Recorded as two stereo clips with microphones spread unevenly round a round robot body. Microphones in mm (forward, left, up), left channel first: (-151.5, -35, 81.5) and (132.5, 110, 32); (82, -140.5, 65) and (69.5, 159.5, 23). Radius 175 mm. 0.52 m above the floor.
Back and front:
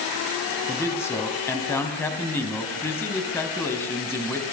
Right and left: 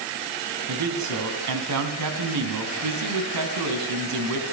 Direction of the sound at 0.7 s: 125° left.